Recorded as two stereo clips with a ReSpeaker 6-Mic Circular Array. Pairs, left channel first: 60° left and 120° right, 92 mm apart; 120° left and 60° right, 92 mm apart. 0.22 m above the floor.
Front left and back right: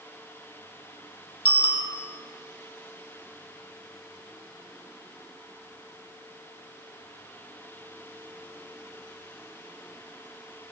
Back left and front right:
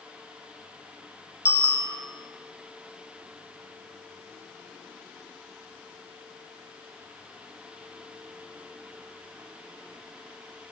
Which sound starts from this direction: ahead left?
A bicycle bell, at 1.4 s.